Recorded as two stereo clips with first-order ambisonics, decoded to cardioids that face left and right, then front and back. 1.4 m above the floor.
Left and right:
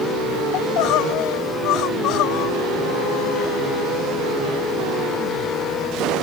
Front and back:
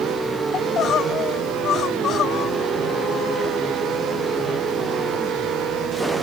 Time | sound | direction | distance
0.5 | crying | 55° left | ?